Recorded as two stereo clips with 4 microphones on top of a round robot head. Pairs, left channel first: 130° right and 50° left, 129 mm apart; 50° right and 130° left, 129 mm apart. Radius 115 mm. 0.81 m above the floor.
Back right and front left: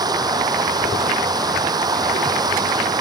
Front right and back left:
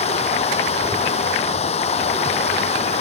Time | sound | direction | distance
0.0 | running water | 10° right | ?